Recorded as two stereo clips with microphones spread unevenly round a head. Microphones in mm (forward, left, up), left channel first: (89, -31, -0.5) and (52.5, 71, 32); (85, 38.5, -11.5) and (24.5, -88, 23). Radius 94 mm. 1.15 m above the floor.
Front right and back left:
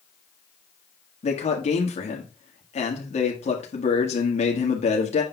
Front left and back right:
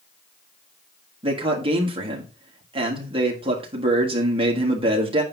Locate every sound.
1.2 s a man speaking: 60° right, 1.8 m